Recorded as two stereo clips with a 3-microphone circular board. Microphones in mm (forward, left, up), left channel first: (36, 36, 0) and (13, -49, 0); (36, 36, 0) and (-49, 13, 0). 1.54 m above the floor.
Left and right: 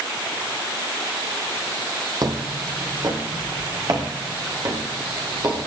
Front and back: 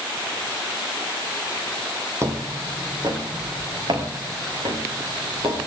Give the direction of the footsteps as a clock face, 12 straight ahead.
4 o'clock.